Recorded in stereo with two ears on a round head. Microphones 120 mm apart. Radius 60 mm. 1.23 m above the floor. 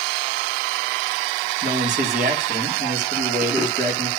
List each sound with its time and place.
1.6 s a man speaking: 60° right (ahead or behind), 3 m